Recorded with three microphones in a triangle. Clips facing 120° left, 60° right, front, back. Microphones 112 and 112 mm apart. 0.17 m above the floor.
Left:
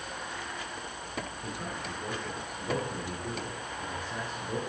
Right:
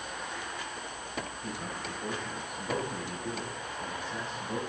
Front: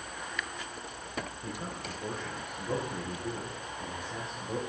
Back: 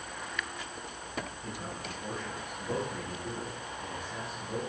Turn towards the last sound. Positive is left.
turn(degrees=55)